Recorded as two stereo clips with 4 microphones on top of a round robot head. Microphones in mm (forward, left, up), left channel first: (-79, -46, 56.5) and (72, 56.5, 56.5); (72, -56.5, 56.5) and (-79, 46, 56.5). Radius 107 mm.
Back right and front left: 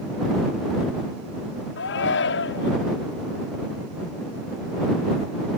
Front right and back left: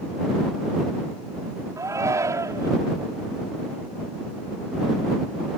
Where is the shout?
140° right.